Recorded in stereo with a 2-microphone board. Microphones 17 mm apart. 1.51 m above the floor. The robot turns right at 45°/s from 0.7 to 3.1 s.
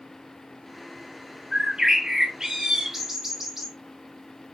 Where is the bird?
105° right, 1.7 m; by 3.7 s 35° right, 1.7 m.